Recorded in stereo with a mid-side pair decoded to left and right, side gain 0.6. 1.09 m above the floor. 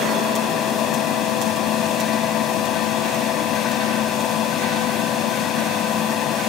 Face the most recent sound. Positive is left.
turn(degrees=60)